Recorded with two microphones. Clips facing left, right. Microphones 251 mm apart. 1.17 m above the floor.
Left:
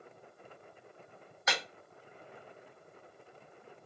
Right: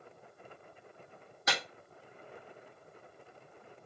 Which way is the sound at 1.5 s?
40° right (ahead or behind).